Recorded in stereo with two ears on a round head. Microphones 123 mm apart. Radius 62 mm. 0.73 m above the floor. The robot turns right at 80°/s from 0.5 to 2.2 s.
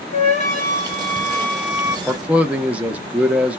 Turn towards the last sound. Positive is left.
turn(degrees=-10)  # may be behind; listen again after turning